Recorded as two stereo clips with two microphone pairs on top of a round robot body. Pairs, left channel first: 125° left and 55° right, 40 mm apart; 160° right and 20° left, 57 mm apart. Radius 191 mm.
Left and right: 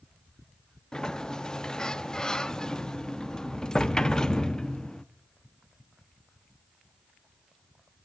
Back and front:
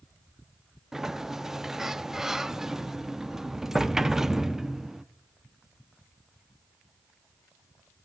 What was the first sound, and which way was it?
A sliding door, 90° left.